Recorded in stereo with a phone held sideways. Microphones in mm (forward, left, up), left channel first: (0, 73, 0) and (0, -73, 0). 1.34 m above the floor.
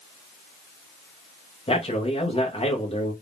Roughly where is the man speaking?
Left.